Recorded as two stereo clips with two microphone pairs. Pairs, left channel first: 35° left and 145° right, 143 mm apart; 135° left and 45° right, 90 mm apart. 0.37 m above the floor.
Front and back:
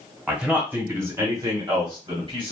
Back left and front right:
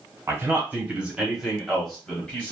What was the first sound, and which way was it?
A man speaking, 70° right.